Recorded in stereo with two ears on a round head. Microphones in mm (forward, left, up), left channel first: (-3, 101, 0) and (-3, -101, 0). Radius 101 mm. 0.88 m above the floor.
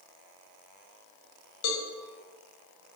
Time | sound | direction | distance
1.6 | a cowbell | 75° left (ahead or behind) | 3.5 m